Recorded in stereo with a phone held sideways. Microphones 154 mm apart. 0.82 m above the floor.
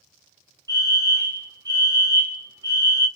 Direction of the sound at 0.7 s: 25° right (ahead or behind).